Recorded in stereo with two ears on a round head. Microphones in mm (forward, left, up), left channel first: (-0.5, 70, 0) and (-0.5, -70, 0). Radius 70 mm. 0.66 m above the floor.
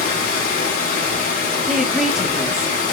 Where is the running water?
60° left (ahead or behind), 1.9 m.